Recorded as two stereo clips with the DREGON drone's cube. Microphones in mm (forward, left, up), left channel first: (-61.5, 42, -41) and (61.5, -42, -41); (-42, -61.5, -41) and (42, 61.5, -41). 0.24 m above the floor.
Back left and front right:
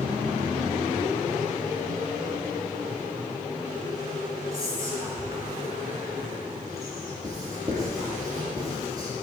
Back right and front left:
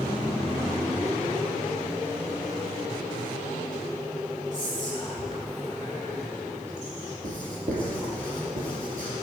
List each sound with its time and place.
4.5 s whispering: 30° left, 3 m
7.2 s writing: 30° left, 2.5 m